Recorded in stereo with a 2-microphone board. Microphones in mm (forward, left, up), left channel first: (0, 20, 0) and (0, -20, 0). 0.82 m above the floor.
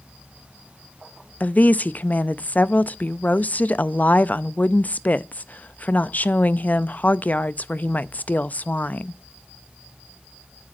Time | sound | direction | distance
1.4 | a woman speaking | 40° left (ahead or behind) | 0.5 m